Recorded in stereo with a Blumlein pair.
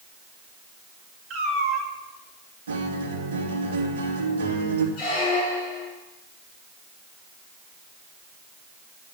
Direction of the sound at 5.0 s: 50° left.